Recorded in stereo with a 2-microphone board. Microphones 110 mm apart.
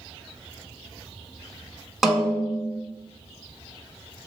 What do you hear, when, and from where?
2.0 s a snare drum: centre (ahead or behind), 0.8 m